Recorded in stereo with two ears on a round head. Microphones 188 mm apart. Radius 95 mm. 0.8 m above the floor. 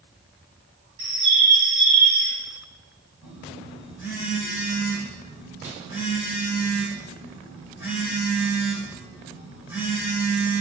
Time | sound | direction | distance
1.0 | a bird | 75° right (ahead or behind) | 1.9 m
3.2 | a phone buzzing | 10° right (ahead or behind) | 2.5 m